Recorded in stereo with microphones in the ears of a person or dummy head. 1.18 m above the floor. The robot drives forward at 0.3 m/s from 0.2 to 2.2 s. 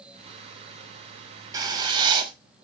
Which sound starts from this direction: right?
Writing, at 1.5 s.